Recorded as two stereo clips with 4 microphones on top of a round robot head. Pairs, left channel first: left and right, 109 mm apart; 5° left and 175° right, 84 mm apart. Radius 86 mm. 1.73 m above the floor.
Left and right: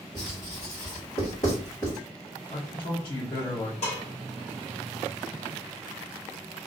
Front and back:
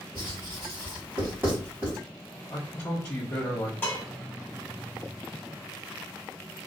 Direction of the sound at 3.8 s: 70° left.